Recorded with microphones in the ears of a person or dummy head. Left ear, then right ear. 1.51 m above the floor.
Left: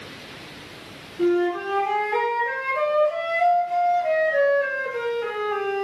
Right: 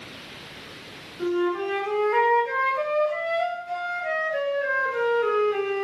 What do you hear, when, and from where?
1.2 s a flute: 5° left (ahead or behind), 2 m